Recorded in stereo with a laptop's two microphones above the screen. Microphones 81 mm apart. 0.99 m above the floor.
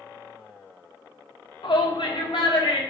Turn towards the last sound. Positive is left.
turn(degrees=80)